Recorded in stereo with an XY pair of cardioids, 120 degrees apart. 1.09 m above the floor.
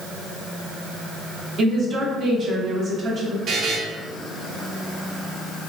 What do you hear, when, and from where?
1.6 s a woman speaking: 45° right, 0.9 m
3.5 s a buzzer: 60° right, 0.6 m